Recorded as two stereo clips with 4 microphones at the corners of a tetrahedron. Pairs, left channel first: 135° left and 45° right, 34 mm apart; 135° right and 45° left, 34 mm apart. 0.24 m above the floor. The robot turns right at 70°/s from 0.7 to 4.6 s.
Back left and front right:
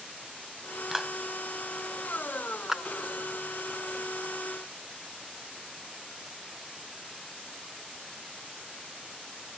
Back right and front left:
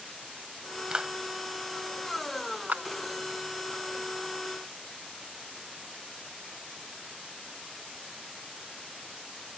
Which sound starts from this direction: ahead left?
A clap, at 2.7 s.